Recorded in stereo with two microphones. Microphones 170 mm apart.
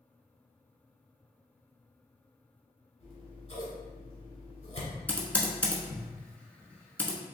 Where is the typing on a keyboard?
10° left (ahead or behind), 0.9 m.